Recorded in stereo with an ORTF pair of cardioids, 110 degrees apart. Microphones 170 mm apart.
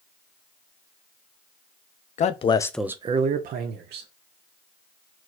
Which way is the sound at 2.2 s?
45° left.